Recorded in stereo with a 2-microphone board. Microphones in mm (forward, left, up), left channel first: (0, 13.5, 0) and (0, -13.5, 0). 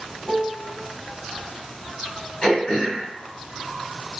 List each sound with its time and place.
0.2 s a piano: 15° left (ahead or behind), 0.5 m
2.4 s throat clearing: 40° left (ahead or behind), 1.8 m